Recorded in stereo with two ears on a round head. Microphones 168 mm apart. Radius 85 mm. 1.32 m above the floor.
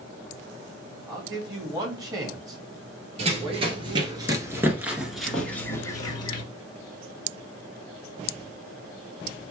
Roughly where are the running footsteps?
Right.